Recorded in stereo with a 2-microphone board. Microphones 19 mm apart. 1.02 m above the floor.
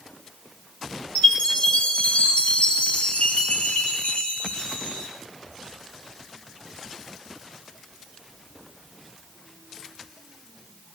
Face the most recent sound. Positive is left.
turn(degrees=85)